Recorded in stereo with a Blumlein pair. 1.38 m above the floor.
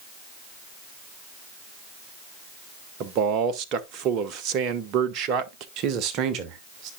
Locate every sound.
3.0 s a man speaking: 35° right, 1.1 m
5.8 s a man speaking: 40° right, 1.3 m